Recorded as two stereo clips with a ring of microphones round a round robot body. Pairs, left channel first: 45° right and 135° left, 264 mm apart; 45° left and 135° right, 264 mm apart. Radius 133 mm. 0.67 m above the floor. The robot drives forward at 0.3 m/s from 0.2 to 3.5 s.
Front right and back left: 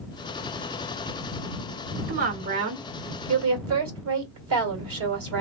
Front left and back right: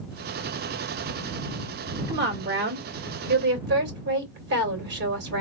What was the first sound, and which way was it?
A woman speaking, 175° left.